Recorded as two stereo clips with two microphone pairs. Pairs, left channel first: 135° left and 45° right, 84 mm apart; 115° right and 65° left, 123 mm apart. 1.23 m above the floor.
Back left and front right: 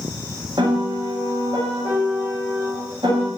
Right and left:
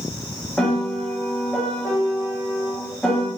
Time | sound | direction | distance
0.6 | a piano | 30° right | 1.0 m